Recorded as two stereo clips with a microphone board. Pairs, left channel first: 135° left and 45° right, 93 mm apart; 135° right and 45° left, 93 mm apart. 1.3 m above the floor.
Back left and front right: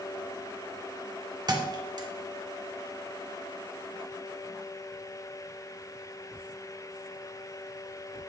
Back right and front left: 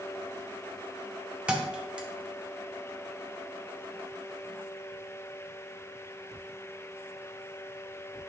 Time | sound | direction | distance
1.5 | a thud | 30° right | 0.8 m